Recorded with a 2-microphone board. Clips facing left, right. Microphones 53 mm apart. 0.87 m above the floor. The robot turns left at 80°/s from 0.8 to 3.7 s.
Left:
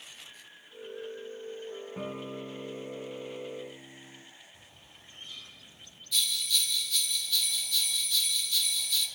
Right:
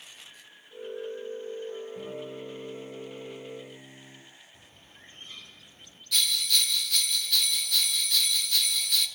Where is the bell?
75° right (ahead or behind), 1.8 m.